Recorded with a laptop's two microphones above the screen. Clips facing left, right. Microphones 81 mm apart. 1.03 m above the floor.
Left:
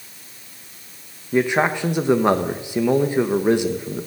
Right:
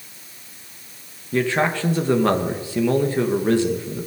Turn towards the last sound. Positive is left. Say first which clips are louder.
# left 2 dB
turn(degrees=15)  # may be behind; listen again after turning